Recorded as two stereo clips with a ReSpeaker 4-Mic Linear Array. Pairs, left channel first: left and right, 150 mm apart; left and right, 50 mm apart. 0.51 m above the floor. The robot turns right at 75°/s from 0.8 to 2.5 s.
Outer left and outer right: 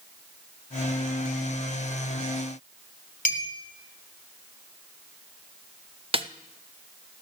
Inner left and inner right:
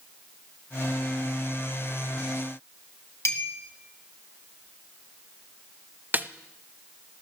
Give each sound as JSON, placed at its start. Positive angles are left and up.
{"t": 3.2, "sound": "a clink", "side_deg": 70, "distance_m": 2.0}
{"t": 6.1, "sound": "a snare drum", "side_deg": -40, "distance_m": 0.7}